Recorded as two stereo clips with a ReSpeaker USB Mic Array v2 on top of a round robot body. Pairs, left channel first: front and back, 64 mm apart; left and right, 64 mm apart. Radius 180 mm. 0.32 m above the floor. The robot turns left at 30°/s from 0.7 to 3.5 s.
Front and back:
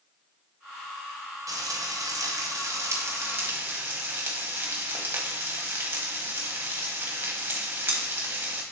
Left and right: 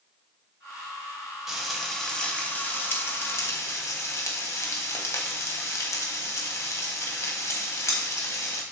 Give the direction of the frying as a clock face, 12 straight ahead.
6 o'clock.